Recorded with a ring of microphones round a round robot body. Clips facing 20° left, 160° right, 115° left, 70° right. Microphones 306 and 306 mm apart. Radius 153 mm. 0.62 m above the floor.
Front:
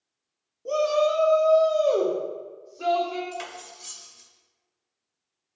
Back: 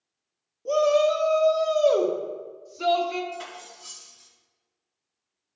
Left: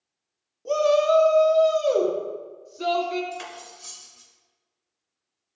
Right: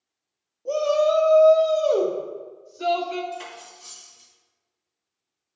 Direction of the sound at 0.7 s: 120° left.